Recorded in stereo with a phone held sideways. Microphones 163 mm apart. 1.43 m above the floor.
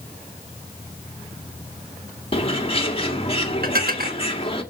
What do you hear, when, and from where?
2.3 s a bird: 40° left (ahead or behind), 1.7 m
3.6 s dishes clattering: 70° right (ahead or behind), 1.5 m